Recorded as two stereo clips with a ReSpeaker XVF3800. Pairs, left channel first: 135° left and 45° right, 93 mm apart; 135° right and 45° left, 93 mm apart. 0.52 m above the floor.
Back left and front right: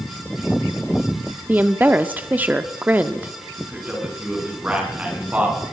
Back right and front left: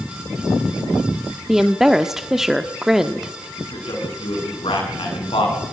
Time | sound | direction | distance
1.5 | a woman speaking | 30° right | 1.1 m
3.6 | a man speaking | 120° right | 6.5 m